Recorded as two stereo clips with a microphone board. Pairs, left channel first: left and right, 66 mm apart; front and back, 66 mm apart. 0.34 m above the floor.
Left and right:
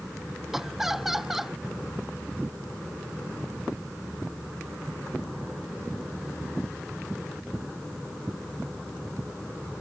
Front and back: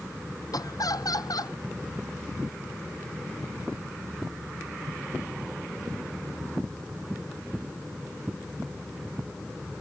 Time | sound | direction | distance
0.5 | laughter | 5° right | ?